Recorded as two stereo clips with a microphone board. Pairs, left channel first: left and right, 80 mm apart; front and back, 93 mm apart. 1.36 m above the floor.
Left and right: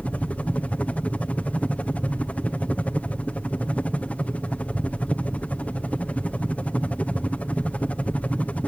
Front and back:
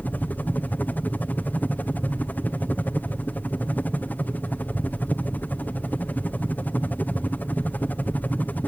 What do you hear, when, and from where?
0.0 s a helicopter: 45° left